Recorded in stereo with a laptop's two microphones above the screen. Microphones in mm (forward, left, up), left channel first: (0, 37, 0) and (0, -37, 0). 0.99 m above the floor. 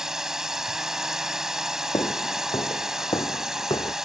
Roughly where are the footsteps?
Left.